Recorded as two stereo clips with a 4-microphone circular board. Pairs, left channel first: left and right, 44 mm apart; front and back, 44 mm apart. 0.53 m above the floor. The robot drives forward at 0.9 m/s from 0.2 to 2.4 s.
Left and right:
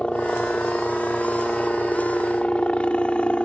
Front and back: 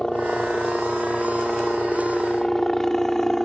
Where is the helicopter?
55° left; by 3.5 s 70° left.